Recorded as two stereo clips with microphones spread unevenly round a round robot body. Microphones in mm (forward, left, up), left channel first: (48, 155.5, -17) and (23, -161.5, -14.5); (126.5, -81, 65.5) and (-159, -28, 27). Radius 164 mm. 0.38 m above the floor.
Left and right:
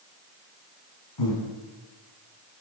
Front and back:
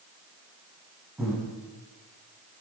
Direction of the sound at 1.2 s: 80° left.